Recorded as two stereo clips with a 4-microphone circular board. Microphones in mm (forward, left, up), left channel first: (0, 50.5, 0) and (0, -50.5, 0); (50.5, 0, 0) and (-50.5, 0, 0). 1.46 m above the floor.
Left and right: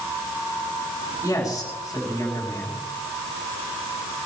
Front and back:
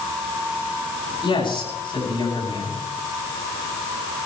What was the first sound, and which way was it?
A man speaking, 35° left.